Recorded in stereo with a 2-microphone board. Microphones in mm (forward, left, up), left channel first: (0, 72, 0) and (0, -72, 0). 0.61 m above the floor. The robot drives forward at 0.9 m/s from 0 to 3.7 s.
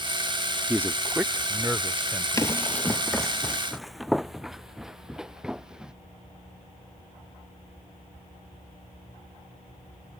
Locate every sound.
0.7 s a man speaking: 15° right (ahead or behind); by 2.6 s 5° right (ahead or behind)
2.4 s running footsteps: 25° left (ahead or behind); by 5.9 s 5° right (ahead or behind)